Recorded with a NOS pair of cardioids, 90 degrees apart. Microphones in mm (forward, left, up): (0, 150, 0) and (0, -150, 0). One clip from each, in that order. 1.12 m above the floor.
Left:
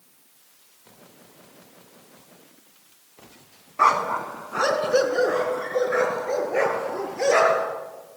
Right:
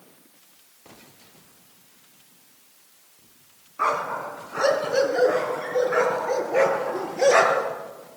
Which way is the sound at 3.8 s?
50° left.